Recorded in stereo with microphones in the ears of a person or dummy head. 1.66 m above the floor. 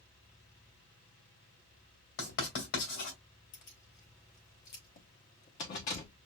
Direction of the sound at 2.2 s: 60° left (ahead or behind).